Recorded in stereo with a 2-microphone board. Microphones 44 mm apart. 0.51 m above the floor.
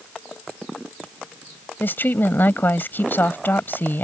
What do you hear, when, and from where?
1.8 s a woman speaking: 50° left (ahead or behind)